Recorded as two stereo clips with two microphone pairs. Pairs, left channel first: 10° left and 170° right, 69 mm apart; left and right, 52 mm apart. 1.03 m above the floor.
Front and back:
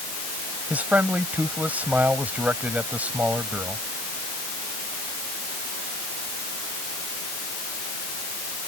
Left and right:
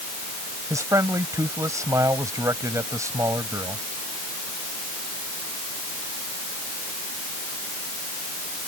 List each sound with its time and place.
0.7 s a man speaking: 105° right